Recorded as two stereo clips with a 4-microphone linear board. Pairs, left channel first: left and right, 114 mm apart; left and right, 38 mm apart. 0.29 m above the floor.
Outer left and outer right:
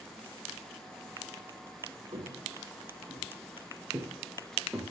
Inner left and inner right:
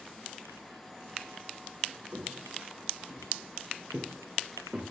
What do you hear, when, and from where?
2.1 s footsteps: 45° right (ahead or behind), 4 m; by 4.8 s 10° right (ahead or behind), 3 m